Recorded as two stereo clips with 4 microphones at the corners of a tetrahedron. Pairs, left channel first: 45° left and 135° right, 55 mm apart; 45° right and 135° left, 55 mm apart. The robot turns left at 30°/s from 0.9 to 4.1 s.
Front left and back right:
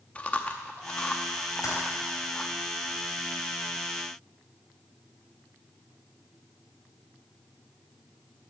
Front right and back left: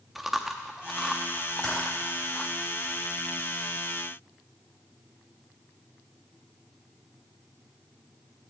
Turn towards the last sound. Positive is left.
turn(degrees=-45)